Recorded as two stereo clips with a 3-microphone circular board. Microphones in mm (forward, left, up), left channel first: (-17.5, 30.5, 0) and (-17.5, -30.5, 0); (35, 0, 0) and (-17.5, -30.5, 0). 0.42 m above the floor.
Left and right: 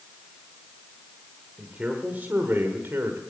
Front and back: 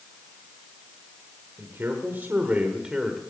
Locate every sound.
1.6 s a man speaking: 155° right, 1.6 m; by 3.2 s 65° right, 1.6 m